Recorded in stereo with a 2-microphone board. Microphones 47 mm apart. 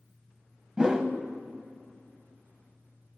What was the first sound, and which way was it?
A whoosh, 15° right (ahead or behind).